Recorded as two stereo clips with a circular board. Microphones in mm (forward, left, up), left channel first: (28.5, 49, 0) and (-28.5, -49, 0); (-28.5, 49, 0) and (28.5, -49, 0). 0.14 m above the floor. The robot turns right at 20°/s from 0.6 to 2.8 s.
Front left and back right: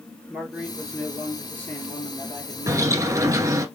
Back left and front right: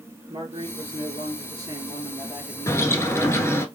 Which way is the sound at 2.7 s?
Straight behind.